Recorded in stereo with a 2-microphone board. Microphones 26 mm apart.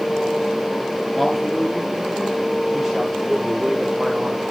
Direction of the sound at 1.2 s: 10° left (ahead or behind).